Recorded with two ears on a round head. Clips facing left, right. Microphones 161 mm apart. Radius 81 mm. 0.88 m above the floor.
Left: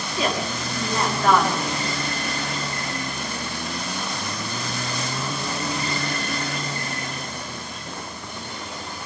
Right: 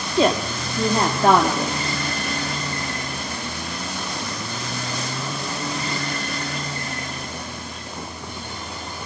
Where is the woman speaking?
25° right (ahead or behind), 2 m.